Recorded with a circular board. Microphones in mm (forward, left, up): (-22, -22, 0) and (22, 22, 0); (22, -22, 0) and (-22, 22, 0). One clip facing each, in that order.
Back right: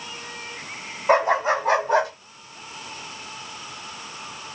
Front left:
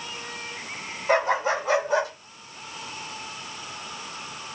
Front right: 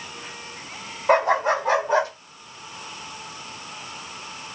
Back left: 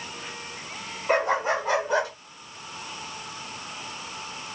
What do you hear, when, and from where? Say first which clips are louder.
1.1 s a dog barking: back right 4 dB, front right 5 dB; 75° right, 3 m; by 2.1 s 95° right, 2.5 m